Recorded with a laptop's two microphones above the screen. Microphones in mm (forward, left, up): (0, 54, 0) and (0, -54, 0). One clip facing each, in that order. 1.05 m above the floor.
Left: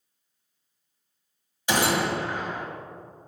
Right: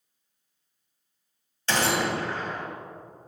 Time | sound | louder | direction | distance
1.7 | a gunshot | left 1 dB | 15° left (ahead or behind) | 1.0 m